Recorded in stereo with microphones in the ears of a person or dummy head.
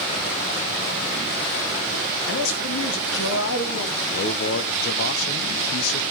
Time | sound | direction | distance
2.3 | a man speaking | 80° left | 2.5 m
4.1 | a man speaking | 60° left (ahead or behind) | 1.3 m